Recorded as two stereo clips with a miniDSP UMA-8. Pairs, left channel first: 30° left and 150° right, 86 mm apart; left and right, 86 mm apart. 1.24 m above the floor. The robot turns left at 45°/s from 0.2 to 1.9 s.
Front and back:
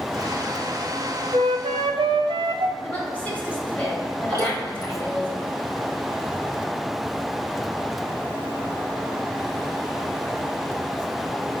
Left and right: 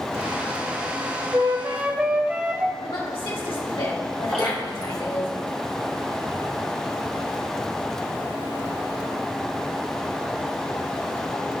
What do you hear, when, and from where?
1.3 s a flute: 140° right, 0.5 m; by 2.7 s 165° right, 0.5 m
2.8 s a woman speaking: 100° left, 3 m
4.3 s dripping: 175° left, 2 m